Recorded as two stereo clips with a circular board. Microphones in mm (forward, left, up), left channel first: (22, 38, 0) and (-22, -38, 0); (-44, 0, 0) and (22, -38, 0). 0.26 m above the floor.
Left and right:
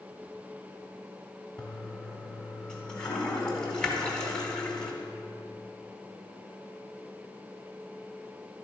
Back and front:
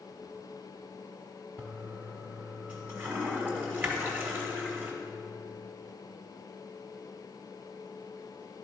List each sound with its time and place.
1.6 s a toilet flushing: 10° right, 1.2 m